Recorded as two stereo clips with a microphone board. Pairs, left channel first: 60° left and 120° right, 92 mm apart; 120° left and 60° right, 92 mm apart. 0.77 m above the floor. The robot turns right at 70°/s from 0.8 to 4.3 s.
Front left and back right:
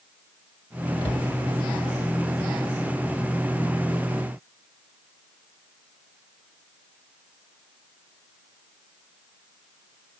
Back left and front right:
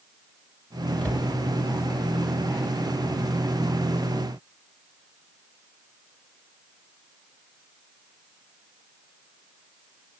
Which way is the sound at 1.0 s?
40° left.